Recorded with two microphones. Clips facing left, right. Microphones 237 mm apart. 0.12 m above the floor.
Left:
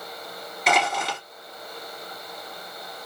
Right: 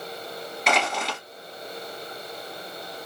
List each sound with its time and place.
0.7 s crushing: centre (ahead or behind), 1.8 m